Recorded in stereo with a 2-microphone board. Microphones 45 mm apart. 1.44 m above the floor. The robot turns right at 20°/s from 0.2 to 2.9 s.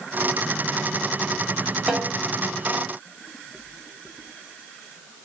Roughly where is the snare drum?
Centre.